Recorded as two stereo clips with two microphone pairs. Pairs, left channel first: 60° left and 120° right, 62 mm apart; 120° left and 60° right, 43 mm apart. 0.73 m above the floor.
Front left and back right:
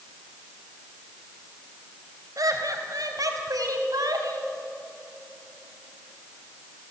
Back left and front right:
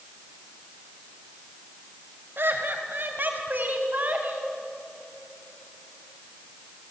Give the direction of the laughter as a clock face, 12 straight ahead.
3 o'clock.